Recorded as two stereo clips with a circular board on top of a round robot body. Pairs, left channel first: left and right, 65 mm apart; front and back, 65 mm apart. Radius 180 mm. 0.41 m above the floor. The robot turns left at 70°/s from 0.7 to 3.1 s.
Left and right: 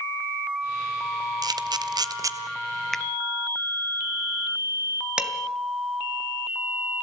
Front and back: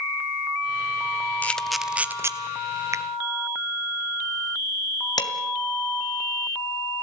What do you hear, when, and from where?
1.4 s a camera shutter: 70° right, 1.4 m; by 2.3 s 135° right, 1.4 m
2.9 s a finger snap: 175° left, 0.7 m; by 3.0 s 165° left, 0.7 m
5.2 s dishes clattering: 15° right, 2.5 m